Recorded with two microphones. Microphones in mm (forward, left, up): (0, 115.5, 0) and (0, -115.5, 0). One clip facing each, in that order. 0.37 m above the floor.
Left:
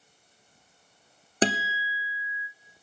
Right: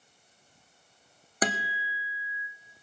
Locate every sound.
1.4 s a guitar: 30° left (ahead or behind), 1.0 m